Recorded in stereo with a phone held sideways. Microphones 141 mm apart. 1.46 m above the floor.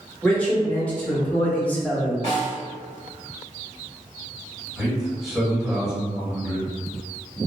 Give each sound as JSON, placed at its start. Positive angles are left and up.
{"t": 0.2, "sound": "a man speaking", "side_deg": 10, "distance_m": 1.5}
{"t": 2.2, "sound": "a snare drum", "side_deg": 40, "distance_m": 1.6}
{"t": 4.8, "sound": "a man speaking", "side_deg": -5, "distance_m": 1.4}